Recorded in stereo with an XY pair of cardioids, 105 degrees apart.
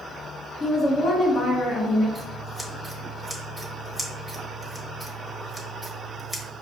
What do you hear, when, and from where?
0.6 s a woman speaking: 45° left, 1.1 m
2.1 s scissors: 10° right, 1.2 m